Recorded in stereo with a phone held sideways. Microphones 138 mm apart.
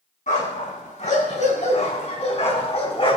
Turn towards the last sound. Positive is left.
turn(degrees=40)  # may be behind; listen again after turning